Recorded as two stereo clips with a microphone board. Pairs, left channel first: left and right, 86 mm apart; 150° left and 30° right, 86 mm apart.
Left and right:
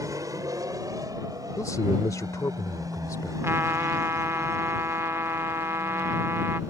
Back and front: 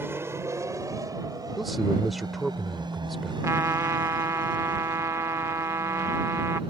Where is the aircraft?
75° right; by 6.7 s 40° right.